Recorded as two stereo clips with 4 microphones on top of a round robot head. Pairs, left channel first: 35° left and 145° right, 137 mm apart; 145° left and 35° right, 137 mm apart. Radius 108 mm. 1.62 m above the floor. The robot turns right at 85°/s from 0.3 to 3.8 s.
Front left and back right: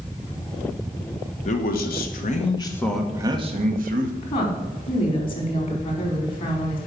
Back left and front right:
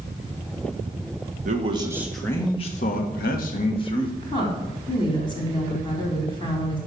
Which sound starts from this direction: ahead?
A man speaking, at 1.4 s.